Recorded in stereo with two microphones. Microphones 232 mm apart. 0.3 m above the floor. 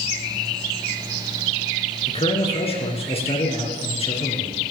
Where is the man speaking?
25° left (ahead or behind), 4 m.